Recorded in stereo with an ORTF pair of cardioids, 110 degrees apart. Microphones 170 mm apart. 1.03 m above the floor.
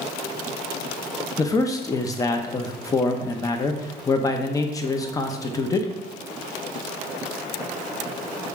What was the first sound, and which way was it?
A man speaking, 20° left.